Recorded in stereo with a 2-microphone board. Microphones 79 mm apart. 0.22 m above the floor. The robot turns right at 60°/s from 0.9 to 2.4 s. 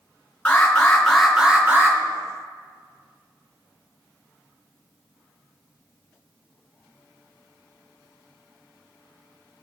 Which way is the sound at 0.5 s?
165° left.